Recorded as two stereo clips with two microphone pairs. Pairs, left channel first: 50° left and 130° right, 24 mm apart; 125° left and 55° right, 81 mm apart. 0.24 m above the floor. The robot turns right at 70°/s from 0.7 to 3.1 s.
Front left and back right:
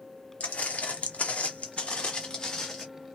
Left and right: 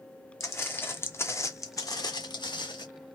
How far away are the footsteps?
About 0.7 m.